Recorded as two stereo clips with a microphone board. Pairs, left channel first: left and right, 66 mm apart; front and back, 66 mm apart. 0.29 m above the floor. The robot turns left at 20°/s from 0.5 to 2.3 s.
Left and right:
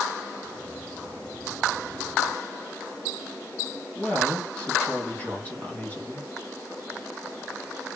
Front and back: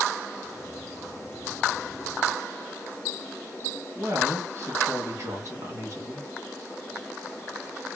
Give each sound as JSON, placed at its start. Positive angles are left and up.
{"t": 4.0, "sound": "a woman speaking", "azimuth_deg": 150, "distance_m": 2.0}